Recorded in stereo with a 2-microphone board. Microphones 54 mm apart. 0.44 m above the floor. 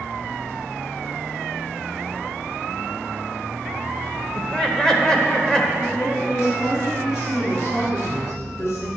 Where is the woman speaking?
65° left (ahead or behind), 4.5 m.